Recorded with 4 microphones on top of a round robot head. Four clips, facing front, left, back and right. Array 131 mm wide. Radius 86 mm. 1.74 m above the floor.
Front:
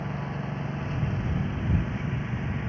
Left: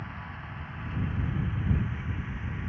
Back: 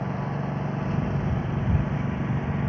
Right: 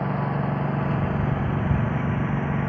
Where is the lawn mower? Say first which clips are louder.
Right 16 dB, back 4 dB; 110° right; by 2.7 s 115° right.